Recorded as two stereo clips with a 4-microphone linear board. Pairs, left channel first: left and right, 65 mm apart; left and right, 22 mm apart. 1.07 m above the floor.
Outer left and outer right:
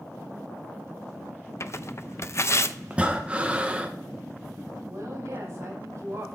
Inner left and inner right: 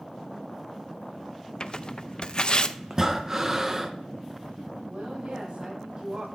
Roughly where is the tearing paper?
Left.